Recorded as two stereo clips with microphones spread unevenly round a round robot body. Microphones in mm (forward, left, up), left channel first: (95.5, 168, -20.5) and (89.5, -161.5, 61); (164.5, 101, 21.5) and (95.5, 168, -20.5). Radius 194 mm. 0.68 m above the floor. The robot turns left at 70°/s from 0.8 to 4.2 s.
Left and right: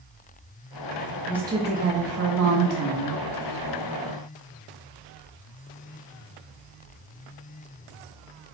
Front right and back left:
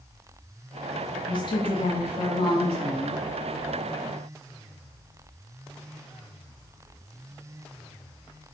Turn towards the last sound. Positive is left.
turn(degrees=170)